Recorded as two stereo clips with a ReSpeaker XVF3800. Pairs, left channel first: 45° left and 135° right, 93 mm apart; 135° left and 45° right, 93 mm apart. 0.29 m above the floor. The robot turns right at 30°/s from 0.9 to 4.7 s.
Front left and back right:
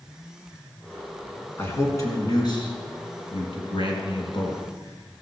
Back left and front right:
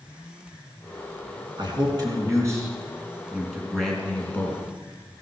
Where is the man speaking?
15° right, 3.5 m; by 4.6 s 75° left, 3.5 m.